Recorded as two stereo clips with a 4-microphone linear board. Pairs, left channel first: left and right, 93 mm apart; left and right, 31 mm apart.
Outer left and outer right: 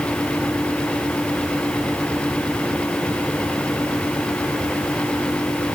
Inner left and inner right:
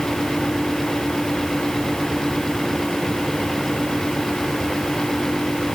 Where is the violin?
No violin in this recording.